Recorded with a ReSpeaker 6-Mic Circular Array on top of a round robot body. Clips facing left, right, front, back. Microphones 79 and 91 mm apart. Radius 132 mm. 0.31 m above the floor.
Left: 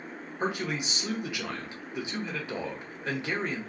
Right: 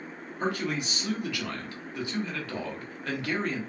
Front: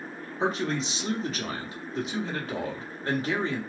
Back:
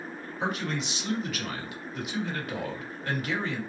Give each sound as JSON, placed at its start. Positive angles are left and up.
{"t": 0.4, "sound": "a man speaking", "azimuth_deg": 30, "distance_m": 1.7}